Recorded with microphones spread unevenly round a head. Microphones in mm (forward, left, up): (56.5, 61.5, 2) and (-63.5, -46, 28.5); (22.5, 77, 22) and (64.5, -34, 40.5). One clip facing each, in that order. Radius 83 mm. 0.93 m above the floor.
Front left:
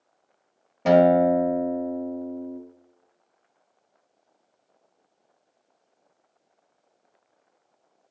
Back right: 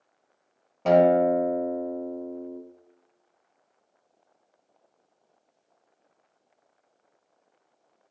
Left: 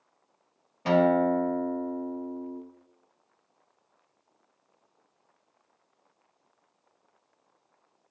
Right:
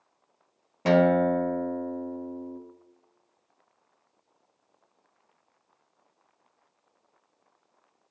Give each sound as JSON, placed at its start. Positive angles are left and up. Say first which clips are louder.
{"t": 0.8, "sound": "a guitar", "louder": "front left 2 dB, right 1 dB", "azimuth_deg": -45, "distance_m": 1.0}